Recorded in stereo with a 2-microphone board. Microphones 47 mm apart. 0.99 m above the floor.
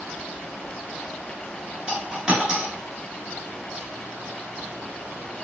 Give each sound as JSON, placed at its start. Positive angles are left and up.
{"t": 1.9, "sound": "a dropped coin", "side_deg": -20, "distance_m": 1.2}